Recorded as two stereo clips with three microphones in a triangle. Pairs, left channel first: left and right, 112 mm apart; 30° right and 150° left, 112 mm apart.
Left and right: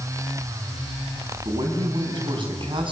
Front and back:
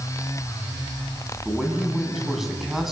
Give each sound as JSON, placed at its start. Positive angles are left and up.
{"t": 1.4, "sound": "a man speaking", "azimuth_deg": -125, "distance_m": 5.0}